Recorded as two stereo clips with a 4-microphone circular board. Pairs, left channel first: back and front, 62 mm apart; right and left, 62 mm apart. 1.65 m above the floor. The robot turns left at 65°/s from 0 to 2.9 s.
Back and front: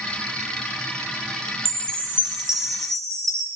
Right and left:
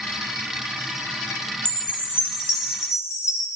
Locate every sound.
1.6 s a chime: 20° right, 1.7 m; by 3.5 s 100° right, 1.7 m